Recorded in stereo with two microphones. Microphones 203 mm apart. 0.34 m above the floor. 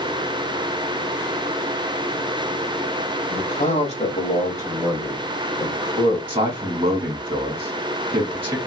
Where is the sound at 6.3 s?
25° right (ahead or behind), 2 m.